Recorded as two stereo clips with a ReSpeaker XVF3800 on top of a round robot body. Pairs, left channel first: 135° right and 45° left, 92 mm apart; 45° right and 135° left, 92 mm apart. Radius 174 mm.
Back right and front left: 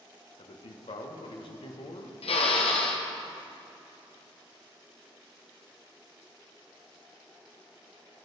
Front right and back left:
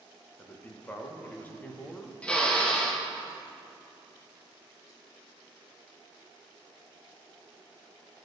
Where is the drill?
125° right, 1.4 m.